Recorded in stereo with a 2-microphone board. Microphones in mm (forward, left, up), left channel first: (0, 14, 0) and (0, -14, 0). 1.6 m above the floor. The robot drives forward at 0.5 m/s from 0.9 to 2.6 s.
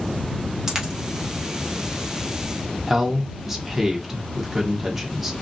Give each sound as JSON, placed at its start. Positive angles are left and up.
{"t": 0.7, "sound": "a dropped coin", "side_deg": -20, "distance_m": 0.9}
{"t": 2.9, "sound": "a man speaking", "side_deg": -10, "distance_m": 0.9}